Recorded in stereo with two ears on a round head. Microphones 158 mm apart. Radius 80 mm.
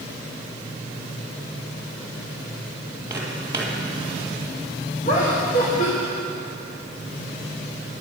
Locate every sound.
3.1 s footsteps: 15° right (ahead or behind), 2.5 m
5.0 s laughter: 45° left (ahead or behind), 1.4 m